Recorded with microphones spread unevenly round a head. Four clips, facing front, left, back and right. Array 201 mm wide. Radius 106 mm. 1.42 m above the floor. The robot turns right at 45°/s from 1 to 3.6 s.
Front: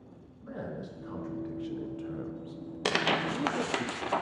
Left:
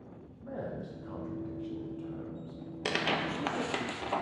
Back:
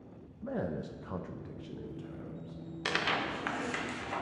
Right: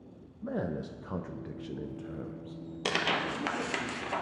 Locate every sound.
0.4 s a man speaking: 105° right, 0.6 m; by 3.9 s 15° left, 0.6 m
2.9 s tearing paper: 30° right, 0.6 m; by 4.2 s 5° left, 0.6 m